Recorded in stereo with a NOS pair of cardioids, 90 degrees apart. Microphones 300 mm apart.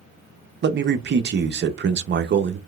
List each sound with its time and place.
0.6 s a man speaking: 35° right, 0.7 m